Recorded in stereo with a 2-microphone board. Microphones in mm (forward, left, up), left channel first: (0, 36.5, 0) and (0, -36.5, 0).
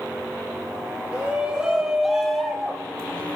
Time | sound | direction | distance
1.1 | a shout | 15° right (ahead or behind) | 5 m